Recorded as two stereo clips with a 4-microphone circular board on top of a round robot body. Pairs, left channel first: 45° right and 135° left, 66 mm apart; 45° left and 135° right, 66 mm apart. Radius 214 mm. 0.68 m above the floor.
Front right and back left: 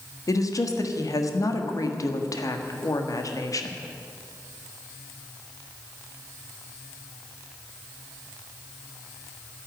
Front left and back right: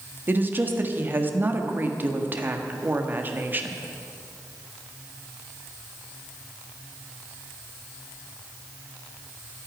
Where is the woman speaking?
75° right, 1.7 m.